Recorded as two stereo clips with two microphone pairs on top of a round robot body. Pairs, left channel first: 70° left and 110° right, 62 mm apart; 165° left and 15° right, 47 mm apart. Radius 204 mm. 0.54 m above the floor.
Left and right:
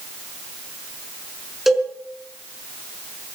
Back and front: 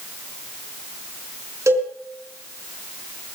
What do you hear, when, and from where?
1.7 s a cowbell: 20° right, 5 m